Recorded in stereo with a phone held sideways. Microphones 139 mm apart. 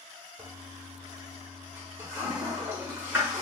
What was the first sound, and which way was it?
A toilet flushing, 20° right (ahead or behind).